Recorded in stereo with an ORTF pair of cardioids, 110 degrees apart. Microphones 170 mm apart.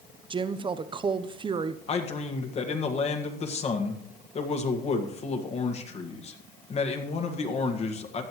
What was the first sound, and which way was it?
A woman speaking, 30° right.